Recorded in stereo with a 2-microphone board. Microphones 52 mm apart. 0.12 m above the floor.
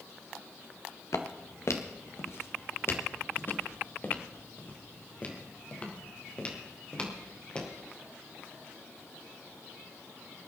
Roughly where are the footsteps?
Left.